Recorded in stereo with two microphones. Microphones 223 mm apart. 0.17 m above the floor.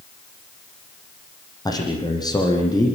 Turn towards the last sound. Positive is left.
turn(degrees=15)  # may be behind; listen again after turning